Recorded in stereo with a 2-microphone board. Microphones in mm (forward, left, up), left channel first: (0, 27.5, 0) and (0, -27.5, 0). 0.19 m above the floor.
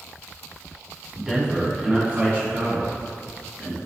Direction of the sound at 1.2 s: 5° right (ahead or behind).